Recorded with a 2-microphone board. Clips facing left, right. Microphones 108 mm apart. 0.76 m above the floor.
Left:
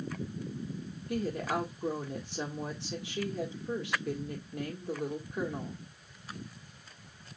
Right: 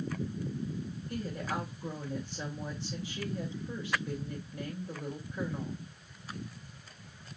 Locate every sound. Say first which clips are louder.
1.1 s a woman speaking: left 5 dB; 75° left (ahead or behind), 1.5 m